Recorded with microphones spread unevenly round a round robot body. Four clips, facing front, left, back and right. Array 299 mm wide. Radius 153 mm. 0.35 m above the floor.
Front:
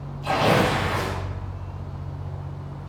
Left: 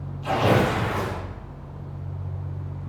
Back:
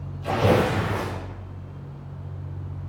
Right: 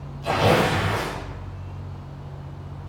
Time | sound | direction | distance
0.2 | tearing paper | 155° right | 6 m